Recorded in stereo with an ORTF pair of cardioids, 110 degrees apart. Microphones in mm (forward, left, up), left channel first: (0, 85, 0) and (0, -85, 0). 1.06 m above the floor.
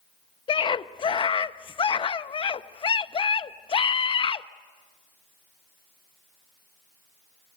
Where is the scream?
30° left, 1.1 m.